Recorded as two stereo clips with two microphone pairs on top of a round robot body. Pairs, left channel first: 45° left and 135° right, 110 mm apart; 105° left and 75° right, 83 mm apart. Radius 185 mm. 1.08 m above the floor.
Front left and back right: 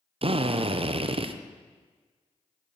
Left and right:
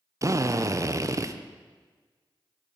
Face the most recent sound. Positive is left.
turn(degrees=-115)